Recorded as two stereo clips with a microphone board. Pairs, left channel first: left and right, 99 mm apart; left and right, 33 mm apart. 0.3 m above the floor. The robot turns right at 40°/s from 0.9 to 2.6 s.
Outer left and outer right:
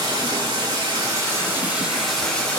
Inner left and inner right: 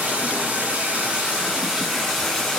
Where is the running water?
50° right, 3 m; by 2.6 s 20° left, 3 m.